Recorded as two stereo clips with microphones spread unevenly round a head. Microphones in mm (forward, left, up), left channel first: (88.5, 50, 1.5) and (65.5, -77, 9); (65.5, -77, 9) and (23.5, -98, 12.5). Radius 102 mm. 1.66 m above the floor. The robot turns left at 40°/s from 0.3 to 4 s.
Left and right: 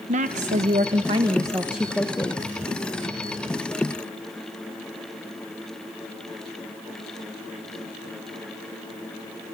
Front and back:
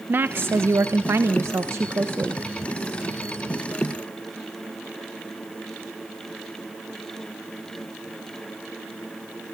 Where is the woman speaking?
125° right, 1.1 m; by 2.4 s 150° left, 1.1 m.